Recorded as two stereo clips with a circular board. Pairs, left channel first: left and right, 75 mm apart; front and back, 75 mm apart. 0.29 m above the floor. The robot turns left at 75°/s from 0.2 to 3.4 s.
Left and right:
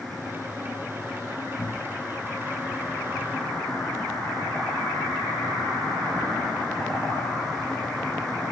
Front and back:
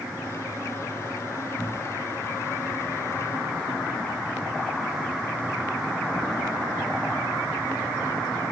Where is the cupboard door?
65° left, 2 m; by 2.1 s 25° left, 2 m.